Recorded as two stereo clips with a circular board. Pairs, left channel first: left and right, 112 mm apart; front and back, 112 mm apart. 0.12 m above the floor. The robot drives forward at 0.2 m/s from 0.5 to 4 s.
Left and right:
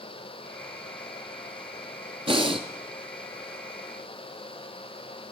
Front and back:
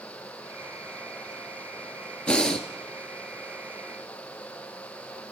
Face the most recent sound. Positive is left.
turn(degrees=-105)